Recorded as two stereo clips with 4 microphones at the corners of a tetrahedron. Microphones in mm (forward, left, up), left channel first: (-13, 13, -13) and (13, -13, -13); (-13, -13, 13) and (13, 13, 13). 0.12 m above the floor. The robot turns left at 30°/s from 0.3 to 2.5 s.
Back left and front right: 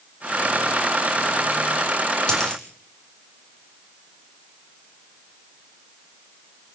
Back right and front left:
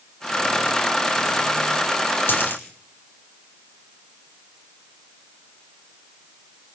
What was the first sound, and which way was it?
A dropped coin, 155° right.